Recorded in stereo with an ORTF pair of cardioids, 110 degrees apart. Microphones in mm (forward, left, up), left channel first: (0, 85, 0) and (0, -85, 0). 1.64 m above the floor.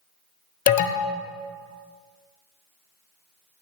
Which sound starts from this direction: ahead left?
An alarm, at 0.7 s.